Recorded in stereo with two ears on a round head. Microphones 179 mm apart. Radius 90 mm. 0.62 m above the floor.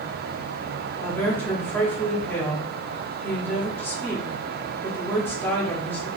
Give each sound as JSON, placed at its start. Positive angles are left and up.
{"t": 1.0, "sound": "a woman speaking", "side_deg": 10, "distance_m": 1.5}